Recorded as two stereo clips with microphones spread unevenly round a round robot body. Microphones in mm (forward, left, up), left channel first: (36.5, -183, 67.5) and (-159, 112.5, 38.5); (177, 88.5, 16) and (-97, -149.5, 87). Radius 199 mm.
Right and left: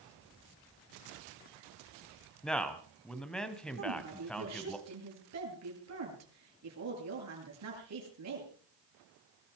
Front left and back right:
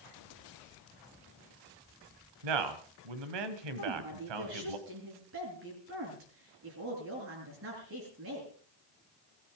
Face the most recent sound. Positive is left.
turn(degrees=165)